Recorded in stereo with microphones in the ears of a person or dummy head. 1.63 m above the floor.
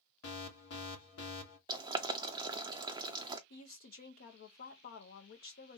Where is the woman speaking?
55° left (ahead or behind), 1.1 m.